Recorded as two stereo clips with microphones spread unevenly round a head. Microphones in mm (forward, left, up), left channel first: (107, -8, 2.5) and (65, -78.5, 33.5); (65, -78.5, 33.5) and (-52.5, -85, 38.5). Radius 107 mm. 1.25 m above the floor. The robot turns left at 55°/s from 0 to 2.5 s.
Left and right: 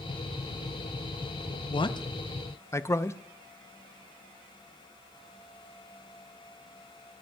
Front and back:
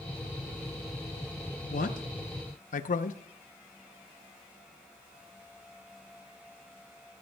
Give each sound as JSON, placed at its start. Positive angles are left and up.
{"t": 1.7, "sound": "a man speaking", "azimuth_deg": 45, "distance_m": 0.7}